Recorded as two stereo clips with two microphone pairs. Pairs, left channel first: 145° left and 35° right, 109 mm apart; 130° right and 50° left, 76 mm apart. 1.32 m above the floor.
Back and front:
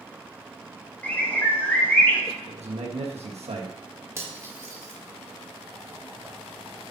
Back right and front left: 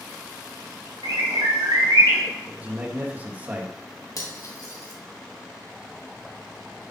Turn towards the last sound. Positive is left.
turn(degrees=-95)